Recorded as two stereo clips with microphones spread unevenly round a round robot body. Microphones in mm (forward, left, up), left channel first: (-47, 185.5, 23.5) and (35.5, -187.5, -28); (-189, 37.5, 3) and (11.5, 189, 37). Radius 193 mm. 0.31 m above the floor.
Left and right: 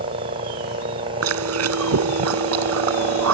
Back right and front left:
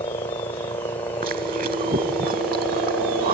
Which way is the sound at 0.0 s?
100° right.